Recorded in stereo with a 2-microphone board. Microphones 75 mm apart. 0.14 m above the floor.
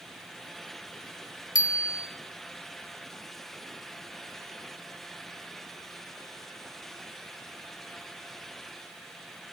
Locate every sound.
1.6 s a bicycle bell: 55° left (ahead or behind), 2.5 m